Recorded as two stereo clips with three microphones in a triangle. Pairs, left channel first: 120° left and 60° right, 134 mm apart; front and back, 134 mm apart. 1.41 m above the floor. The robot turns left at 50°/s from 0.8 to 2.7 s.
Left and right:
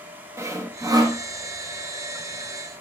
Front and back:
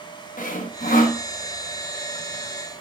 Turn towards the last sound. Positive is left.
turn(degrees=-85)